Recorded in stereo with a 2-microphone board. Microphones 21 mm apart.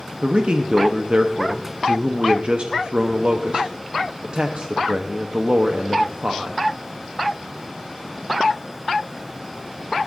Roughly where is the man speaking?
Right.